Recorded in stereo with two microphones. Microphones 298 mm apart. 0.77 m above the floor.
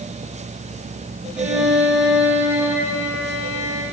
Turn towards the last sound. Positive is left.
turn(degrees=-70)  # may be behind; listen again after turning